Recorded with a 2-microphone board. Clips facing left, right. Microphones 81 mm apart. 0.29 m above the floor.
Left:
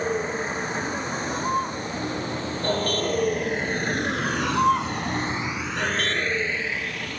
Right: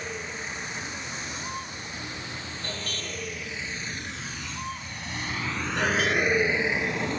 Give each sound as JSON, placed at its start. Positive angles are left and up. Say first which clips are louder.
{"t": 0.0, "sound": "a vehicle", "louder": "left 10 dB", "side_deg": 40}